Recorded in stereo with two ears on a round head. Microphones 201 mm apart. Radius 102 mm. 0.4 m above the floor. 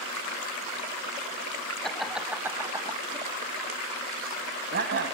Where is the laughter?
Centre (ahead or behind), 2.5 m; by 5.1 s 55° right (ahead or behind), 3 m.